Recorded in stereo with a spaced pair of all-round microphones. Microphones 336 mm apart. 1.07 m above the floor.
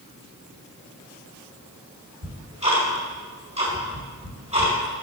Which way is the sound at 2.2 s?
20° right (ahead or behind).